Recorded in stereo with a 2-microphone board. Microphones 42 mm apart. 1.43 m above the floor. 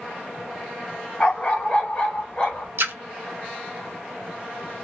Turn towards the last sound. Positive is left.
turn(degrees=-60)  # may be behind; listen again after turning